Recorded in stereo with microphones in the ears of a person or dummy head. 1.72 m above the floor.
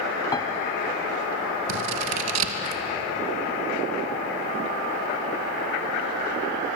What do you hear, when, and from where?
0.3 s a piano: 20° left (ahead or behind), 1.0 m
1.7 s scissors: 85° right, 2.5 m